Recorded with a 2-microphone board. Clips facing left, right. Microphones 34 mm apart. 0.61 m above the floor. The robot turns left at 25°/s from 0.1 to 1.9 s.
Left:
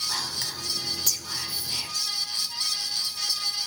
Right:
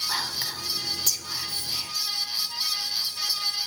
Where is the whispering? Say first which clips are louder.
Right 2 dB; 25° right (ahead or behind), 1.9 m; by 1.9 s 15° left (ahead or behind), 1.9 m.